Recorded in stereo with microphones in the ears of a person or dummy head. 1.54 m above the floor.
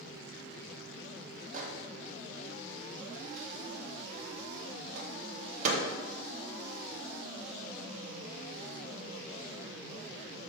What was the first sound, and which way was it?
A microwave, 40° right (ahead or behind).